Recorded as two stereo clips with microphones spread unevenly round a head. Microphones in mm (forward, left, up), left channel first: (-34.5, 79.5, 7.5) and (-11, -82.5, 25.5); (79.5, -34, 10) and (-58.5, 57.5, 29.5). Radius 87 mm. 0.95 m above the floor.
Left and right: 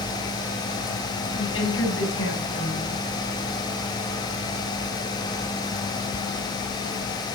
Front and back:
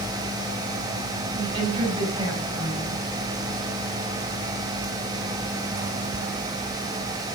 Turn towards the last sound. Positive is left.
turn(degrees=85)